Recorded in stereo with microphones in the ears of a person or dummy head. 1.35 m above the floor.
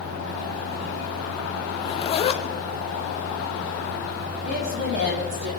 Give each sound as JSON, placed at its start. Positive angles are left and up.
{"t": 1.7, "sound": "a zipper", "side_deg": 30, "distance_m": 1.1}
{"t": 4.5, "sound": "a woman speaking", "side_deg": -65, "distance_m": 4.5}